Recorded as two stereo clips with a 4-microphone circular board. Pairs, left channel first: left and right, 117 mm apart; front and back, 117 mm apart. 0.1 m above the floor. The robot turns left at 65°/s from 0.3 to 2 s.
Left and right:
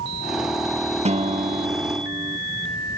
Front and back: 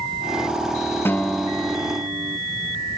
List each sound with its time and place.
1.1 s a guitar: 70° right; by 2.4 s 130° right